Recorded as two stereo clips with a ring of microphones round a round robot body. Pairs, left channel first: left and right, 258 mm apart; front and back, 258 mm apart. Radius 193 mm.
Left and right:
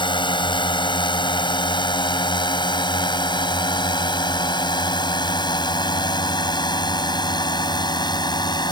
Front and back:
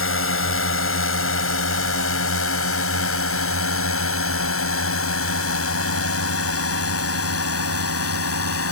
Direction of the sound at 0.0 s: 20° left.